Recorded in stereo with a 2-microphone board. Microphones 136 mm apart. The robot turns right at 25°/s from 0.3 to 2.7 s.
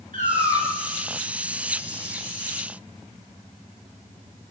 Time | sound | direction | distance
0.1 | a cat meowing | 80° right | 3.5 m